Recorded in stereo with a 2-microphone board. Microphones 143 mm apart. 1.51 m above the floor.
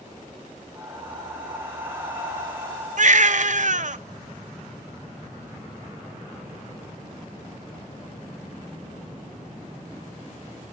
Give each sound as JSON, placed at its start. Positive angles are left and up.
{"t": 0.8, "sound": "breathing", "side_deg": -15, "distance_m": 4.5}
{"t": 3.0, "sound": "a baby crying", "side_deg": -60, "distance_m": 0.6}